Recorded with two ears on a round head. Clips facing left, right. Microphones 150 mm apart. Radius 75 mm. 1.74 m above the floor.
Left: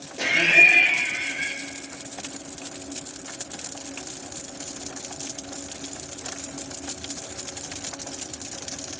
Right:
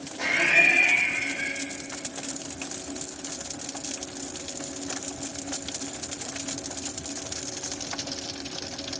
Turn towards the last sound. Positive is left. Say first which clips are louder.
# left 2 dB
turn(degrees=35)  # may be behind; listen again after turning